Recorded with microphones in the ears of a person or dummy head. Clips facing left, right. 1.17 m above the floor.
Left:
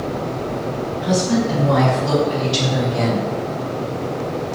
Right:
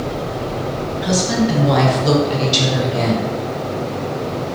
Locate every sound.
1.0 s a woman speaking: 65° right (ahead or behind), 1.8 m; by 3.3 s 20° left (ahead or behind), 1.0 m